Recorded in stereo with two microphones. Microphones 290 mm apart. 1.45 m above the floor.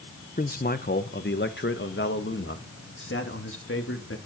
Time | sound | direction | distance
0.4 | a man speaking | 30° left (ahead or behind) | 1.1 m